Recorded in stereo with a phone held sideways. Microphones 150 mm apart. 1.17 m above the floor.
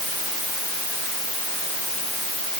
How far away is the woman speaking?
I don't hear a woman speaking.